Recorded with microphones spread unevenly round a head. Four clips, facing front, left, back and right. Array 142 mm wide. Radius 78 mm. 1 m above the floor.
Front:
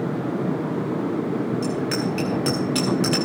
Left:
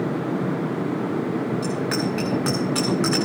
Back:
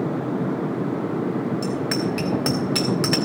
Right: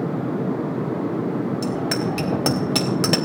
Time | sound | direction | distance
1.6 | a bicycle bell | 100° right | 5.5 m